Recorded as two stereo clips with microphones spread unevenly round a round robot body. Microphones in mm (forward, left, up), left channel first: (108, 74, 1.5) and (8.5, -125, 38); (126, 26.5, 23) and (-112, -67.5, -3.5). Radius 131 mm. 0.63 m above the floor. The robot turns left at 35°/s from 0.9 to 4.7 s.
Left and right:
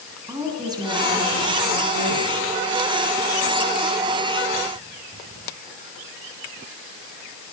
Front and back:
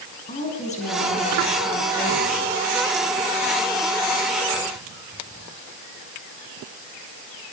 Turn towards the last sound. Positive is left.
turn(degrees=-175)